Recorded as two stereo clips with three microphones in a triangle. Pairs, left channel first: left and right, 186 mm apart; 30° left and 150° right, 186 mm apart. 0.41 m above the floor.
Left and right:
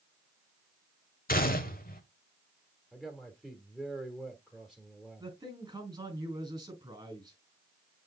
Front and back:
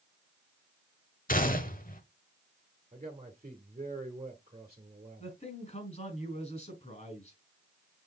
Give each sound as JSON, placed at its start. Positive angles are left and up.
{"t": 1.3, "sound": "a gunshot", "azimuth_deg": 60, "distance_m": 0.9}
{"t": 2.9, "sound": "a man speaking", "azimuth_deg": 175, "distance_m": 1.2}
{"t": 5.2, "sound": "a man speaking", "azimuth_deg": -20, "distance_m": 3.0}